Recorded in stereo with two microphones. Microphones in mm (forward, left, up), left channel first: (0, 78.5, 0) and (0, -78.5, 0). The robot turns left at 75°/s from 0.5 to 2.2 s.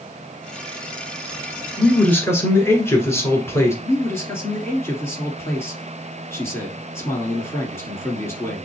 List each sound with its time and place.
1.8 s a man speaking: 175° right, 1.6 m; by 3.7 s 155° left, 1.6 m
3.8 s a man speaking: 15° left (ahead or behind), 1.8 m